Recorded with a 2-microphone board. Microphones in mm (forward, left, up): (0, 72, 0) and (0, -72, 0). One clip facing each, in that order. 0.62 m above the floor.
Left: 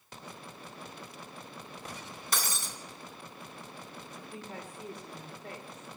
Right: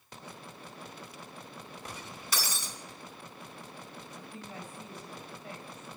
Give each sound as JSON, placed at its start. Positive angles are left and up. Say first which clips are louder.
{"t": 2.3, "sound": "breaking glass", "louder": "left 1 dB", "side_deg": 50, "distance_m": 3.0}
{"t": 4.2, "sound": "a woman speaking", "louder": "left 2 dB", "side_deg": 65, "distance_m": 2.5}